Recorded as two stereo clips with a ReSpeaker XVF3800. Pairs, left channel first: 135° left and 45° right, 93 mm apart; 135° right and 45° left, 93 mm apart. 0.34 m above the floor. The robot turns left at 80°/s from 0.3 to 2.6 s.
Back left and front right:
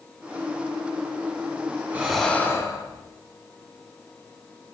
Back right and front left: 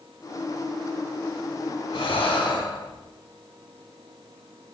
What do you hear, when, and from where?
1.9 s breathing: 115° right, 1.5 m; by 3.0 s 170° right, 1.5 m